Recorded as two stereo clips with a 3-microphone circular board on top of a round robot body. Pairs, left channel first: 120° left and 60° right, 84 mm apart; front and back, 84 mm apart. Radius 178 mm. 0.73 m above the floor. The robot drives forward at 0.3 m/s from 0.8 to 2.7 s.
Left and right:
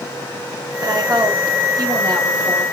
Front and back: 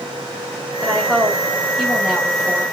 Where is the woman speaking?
85° right, 2 m; by 2.6 s 100° right, 2 m.